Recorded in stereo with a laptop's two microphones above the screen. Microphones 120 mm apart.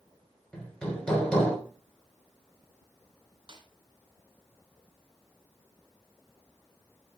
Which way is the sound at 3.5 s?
40° right (ahead or behind).